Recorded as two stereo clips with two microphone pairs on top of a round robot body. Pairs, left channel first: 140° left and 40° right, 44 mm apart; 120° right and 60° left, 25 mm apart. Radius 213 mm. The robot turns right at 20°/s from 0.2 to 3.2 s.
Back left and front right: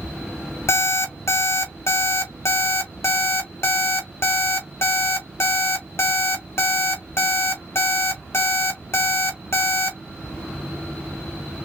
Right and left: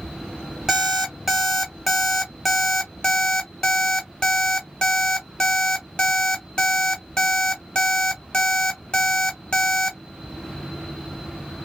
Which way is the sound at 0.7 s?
120° left.